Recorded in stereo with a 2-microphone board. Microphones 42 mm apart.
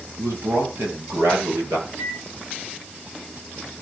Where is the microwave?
80° right, 6.5 m.